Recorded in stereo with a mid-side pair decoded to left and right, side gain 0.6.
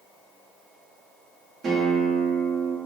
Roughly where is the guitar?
Ahead right.